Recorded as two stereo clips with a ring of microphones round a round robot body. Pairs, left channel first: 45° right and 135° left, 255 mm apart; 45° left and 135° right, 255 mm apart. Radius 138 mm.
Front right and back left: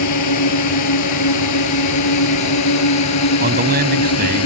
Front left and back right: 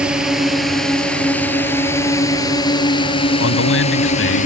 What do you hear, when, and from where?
0.0 s a drone: 50° right; by 4.5 s 15° right
3.4 s a man speaking: 80° left